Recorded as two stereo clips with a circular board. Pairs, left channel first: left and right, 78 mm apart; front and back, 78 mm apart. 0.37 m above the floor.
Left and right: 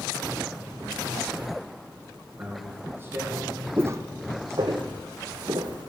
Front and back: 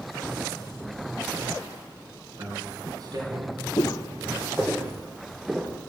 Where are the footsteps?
30° right, 1.0 m; by 5.9 s 100° right, 2 m.